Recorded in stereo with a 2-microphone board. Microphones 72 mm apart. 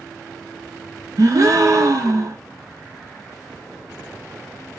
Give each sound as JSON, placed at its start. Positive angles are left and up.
{"t": 1.2, "sound": "a gasp", "side_deg": -50, "distance_m": 0.8}